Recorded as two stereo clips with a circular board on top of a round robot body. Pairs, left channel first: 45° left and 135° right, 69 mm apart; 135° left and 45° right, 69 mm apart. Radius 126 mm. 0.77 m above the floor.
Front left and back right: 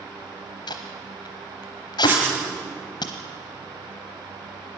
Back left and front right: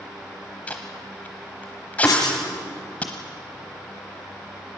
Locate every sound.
0.7 s tape being pulled: 60° left, 0.9 m
2.0 s writing: 165° left, 6 m